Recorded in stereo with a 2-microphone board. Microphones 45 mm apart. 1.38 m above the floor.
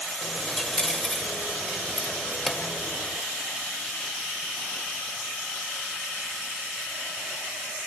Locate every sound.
0.2 s a dropped coin: 5° left (ahead or behind), 1.6 m